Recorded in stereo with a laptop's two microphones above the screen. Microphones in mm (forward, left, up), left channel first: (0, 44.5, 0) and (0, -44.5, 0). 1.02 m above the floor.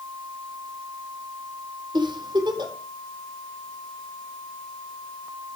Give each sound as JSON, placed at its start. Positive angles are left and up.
{"t": 1.9, "sound": "a giggle", "side_deg": -55, "distance_m": 4.0}